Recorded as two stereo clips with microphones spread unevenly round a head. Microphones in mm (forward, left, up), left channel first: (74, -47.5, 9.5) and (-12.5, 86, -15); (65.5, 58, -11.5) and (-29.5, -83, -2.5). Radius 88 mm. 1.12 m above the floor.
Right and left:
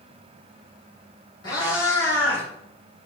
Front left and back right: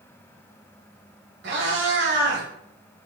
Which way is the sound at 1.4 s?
120° right.